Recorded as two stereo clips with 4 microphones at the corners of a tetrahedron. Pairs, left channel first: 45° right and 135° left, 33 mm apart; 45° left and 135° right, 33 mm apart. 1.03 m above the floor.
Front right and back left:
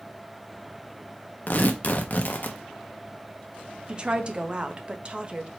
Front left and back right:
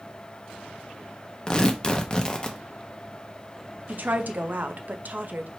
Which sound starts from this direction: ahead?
Tearing paper, at 1.5 s.